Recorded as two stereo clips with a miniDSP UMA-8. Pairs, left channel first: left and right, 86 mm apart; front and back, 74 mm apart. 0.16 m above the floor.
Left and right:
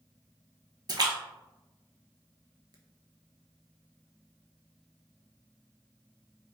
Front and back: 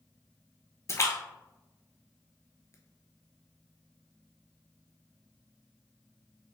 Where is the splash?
50° right, 0.8 m.